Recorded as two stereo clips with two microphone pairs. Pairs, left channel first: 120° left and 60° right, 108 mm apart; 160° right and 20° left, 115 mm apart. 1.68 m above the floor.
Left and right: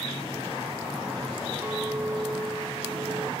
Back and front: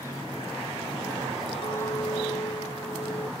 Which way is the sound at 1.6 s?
120° right.